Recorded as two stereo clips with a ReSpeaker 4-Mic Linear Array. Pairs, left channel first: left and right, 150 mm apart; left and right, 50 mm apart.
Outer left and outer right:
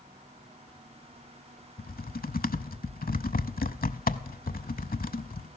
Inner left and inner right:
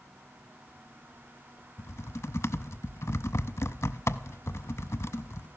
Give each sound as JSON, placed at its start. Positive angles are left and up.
{"t": 1.8, "sound": "typing on a keyboard", "side_deg": 65, "distance_m": 0.6}